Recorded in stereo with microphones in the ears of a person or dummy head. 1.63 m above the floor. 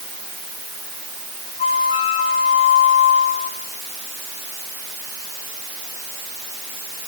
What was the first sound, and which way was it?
A flute, 35° left (ahead or behind).